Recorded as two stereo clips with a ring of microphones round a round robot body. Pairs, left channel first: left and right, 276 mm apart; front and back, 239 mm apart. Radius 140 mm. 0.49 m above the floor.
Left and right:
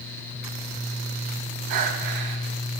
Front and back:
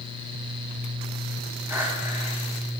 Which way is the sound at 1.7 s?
100° right.